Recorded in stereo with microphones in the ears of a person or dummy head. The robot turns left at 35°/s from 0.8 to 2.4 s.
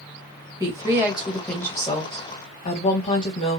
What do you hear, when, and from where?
0.6 s a woman speaking: 160° right, 1.8 m; by 3.6 s 145° left, 1.8 m